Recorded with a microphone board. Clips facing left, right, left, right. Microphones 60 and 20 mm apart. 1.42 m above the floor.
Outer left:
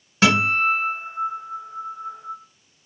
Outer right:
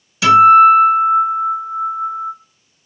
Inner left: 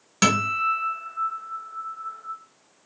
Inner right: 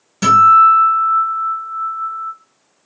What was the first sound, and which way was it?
A guitar, 40° left (ahead or behind).